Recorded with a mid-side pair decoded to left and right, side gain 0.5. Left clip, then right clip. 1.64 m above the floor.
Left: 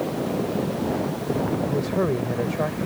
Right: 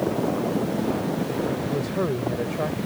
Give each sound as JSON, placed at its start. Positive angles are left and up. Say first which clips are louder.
{"t": 1.6, "sound": "a man speaking", "louder": "left 2 dB", "azimuth_deg": 15}